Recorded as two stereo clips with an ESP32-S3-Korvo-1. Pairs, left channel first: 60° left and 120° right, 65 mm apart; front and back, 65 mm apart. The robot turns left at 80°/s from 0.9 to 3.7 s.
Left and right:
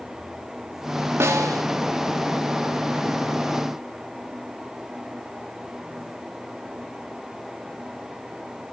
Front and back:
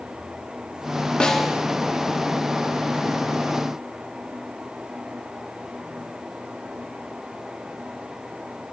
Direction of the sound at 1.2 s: 75° right.